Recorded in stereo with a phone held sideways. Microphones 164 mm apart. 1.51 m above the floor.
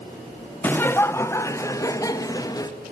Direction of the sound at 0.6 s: 10° left (ahead or behind).